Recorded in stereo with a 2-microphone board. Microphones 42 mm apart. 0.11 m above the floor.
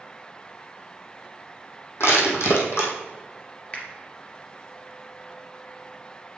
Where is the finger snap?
35° left (ahead or behind), 1.9 m.